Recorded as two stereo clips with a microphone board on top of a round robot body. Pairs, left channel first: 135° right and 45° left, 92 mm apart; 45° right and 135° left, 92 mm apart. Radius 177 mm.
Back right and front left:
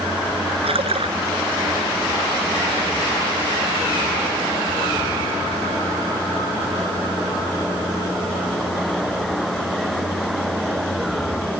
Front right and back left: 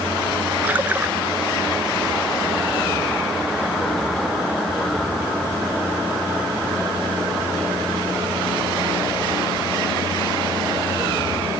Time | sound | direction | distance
0.6 | a splash | 60° left | ?